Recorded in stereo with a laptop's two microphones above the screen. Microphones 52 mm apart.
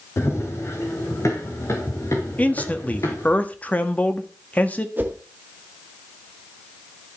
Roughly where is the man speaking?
Left.